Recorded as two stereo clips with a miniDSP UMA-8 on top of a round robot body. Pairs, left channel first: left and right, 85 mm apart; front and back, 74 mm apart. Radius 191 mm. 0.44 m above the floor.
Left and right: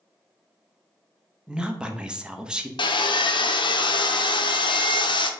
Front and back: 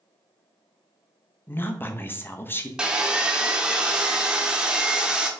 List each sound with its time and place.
1.5 s a woman speaking: 20° right, 0.8 m
2.8 s sawing: 100° left, 0.6 m